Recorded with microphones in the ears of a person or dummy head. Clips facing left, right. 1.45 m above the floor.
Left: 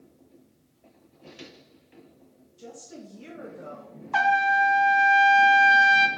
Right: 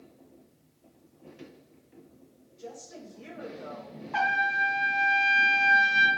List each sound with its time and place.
2.6 s a woman speaking: 45° left (ahead or behind), 3.5 m
4.1 s a trumpet: 70° left (ahead or behind), 1.0 m